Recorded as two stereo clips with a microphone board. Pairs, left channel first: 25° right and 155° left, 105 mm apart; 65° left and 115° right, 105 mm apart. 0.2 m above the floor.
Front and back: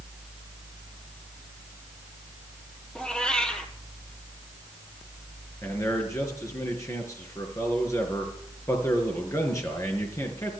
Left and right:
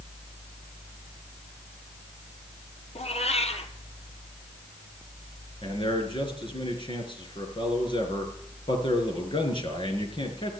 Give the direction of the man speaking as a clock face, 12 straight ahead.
11 o'clock.